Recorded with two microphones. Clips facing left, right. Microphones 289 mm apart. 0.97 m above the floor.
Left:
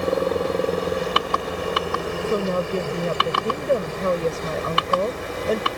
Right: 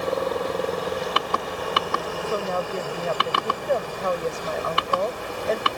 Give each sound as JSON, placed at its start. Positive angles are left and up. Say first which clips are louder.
{"t": 0.0, "sound": "a helicopter", "louder": "left 4 dB", "side_deg": 30}
{"t": 2.2, "sound": "a woman speaking", "louder": "left 5 dB", "side_deg": 35}